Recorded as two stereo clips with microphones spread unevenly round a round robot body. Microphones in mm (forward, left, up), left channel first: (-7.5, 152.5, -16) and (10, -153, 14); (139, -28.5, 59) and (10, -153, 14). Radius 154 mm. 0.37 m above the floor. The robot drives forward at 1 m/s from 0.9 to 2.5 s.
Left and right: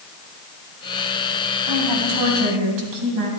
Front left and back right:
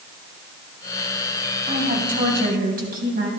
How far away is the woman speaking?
About 2.5 m.